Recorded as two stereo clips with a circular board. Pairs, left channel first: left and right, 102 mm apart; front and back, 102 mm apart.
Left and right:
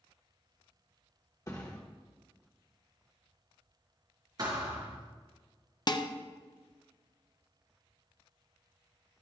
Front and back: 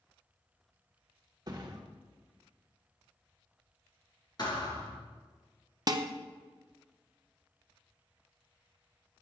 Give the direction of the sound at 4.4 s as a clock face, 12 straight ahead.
1 o'clock.